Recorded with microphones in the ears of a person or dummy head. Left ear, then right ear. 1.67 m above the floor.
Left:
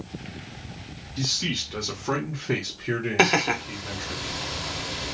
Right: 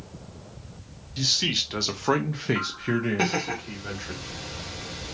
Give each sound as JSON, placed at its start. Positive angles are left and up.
{"t": 1.2, "sound": "a man speaking", "side_deg": -20, "distance_m": 0.8}
{"t": 3.2, "sound": "laughter", "side_deg": 35, "distance_m": 0.6}